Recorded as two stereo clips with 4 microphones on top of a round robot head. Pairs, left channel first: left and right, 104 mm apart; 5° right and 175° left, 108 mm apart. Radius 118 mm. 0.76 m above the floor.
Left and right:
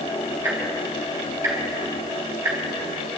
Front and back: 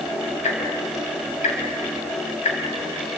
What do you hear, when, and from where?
0.4 s ticking: 20° right, 4 m